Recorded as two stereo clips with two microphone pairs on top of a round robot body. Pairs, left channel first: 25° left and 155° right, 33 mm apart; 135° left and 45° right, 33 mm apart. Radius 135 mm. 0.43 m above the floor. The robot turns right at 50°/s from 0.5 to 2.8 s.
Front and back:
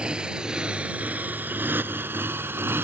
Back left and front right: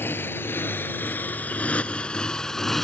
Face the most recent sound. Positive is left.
turn(degrees=-145)